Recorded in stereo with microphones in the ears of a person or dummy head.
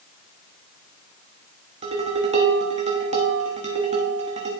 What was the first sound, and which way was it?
Dishes clattering, 30° right (ahead or behind).